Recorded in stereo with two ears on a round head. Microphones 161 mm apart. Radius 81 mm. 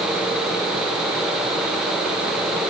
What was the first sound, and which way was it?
Only background noise.